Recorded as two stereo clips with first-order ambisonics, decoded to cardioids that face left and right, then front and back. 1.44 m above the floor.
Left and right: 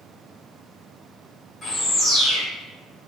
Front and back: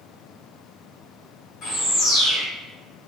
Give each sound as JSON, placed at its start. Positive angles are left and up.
{"t": 1.6, "sound": "a bird", "azimuth_deg": 25, "distance_m": 1.6}